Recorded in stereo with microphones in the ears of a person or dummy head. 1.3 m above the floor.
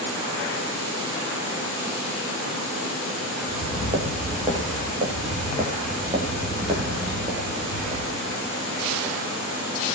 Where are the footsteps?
30° right (ahead or behind), 7.5 m; by 8.5 s 25° right (ahead or behind), 10.5 m.